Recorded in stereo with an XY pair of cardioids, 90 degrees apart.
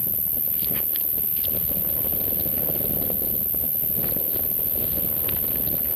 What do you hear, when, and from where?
0.0 s an insect: 5° left, 1.1 m